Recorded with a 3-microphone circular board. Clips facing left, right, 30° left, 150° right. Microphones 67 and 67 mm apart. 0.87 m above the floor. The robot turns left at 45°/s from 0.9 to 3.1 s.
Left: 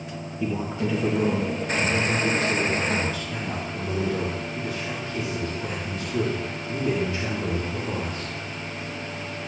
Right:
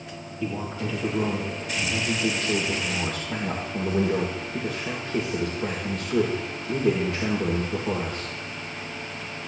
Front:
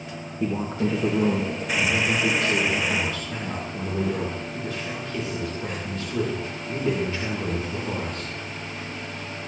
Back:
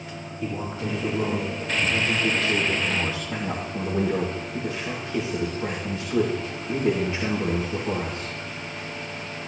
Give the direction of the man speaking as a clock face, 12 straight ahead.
11 o'clock.